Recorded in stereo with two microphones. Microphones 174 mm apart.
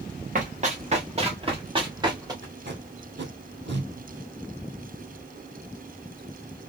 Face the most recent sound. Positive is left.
turn(degrees=-75)  # may be behind; listen again after turning